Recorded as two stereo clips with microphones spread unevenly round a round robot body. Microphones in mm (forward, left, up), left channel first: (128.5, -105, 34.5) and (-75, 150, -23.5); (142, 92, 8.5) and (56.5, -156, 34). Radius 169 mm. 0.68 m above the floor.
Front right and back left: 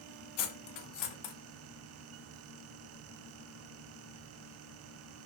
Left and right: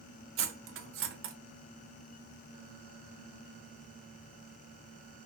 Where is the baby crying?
No baby crying in this recording.